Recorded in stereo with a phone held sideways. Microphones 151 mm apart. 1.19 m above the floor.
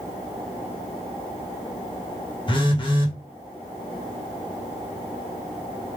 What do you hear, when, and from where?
2.5 s a phone buzzing: 35° left (ahead or behind), 1.0 m